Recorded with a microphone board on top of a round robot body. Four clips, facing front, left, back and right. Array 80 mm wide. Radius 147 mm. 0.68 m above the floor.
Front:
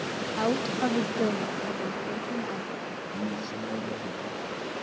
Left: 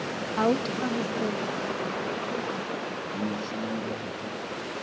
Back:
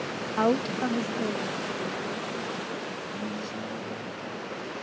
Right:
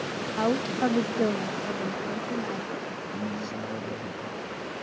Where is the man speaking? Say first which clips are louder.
Left 2 dB, front 4 dB; 60° right, 6.5 m.